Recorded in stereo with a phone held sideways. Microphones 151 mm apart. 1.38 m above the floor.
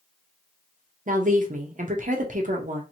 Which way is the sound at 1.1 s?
60° right (ahead or behind).